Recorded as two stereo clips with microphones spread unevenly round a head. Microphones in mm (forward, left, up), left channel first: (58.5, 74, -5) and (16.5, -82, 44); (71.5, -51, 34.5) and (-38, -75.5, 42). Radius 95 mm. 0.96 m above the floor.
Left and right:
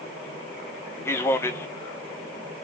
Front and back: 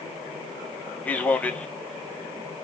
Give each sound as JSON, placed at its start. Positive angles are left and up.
{"t": 1.1, "sound": "a man speaking", "azimuth_deg": 70, "distance_m": 0.9}